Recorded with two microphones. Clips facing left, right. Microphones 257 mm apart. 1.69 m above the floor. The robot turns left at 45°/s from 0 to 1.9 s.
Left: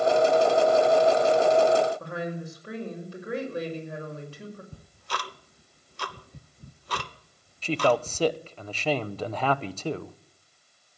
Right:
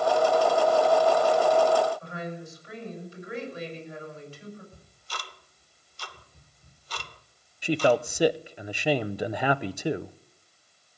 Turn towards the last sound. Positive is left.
turn(degrees=-15)  # may be behind; listen again after turning